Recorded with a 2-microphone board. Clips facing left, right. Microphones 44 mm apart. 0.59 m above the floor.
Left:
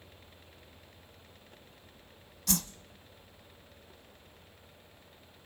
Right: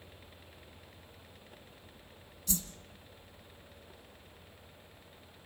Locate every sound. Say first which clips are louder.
2.5 s a whoosh: left 5 dB; 80° left, 1.0 m